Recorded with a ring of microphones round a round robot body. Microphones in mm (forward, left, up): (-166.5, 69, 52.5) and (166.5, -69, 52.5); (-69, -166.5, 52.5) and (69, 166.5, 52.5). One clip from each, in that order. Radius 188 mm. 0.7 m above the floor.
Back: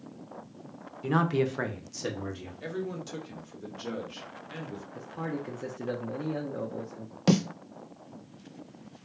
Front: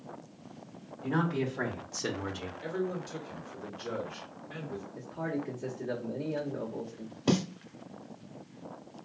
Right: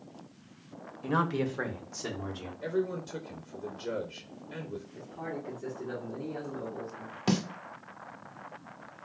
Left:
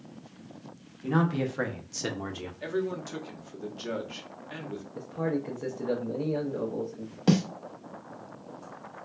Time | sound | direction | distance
1.0 | a man speaking | 175° right | 0.8 m
2.6 | a man speaking | 90° left | 1.2 m
5.0 | a man speaking | 125° left | 0.9 m
7.3 | a snare drum | 160° left | 0.5 m